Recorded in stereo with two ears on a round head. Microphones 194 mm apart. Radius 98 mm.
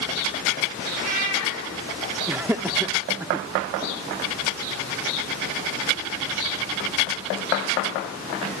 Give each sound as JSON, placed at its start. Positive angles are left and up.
{"t": 0.9, "sound": "a cat meowing", "side_deg": -80, "distance_m": 9.0}
{"t": 2.3, "sound": "laughter", "side_deg": -10, "distance_m": 0.6}